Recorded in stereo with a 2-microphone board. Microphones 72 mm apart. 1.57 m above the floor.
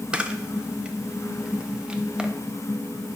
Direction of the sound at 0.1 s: 10° right (ahead or behind).